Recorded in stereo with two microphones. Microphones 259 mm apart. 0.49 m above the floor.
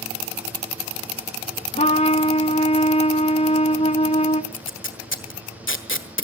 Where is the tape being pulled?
50° left (ahead or behind), 1.6 m.